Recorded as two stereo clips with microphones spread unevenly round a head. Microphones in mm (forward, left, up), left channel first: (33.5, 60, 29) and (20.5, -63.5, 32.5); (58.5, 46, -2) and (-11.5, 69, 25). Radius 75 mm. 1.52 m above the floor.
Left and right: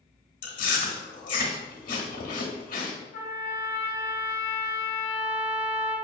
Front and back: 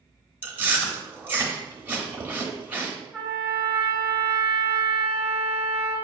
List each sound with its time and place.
0.4 s chewing: 90° left, 1.0 m
3.1 s a trumpet: 85° left, 1.1 m